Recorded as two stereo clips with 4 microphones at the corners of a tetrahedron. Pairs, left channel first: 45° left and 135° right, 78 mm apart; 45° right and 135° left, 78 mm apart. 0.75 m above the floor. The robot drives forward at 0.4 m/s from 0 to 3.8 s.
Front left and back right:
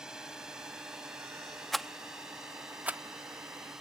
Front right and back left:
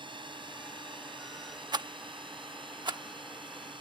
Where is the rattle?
130° left; by 3.0 s 155° left.